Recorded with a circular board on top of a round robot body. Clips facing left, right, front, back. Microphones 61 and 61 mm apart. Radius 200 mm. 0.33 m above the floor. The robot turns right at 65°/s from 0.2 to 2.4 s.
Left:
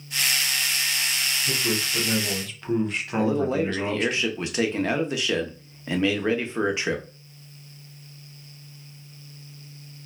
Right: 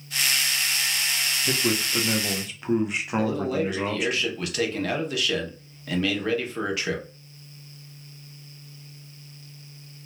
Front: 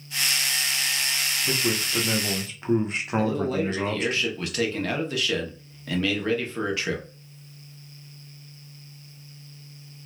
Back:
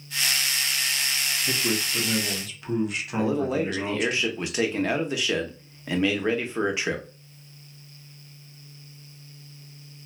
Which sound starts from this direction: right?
A man speaking, at 1.4 s.